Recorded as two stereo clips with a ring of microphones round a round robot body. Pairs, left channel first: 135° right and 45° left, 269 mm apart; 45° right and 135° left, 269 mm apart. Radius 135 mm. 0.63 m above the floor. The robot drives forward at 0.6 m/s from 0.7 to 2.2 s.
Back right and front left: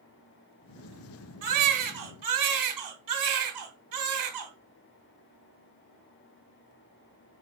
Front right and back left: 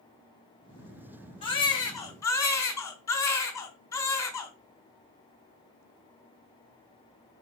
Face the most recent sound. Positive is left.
turn(degrees=35)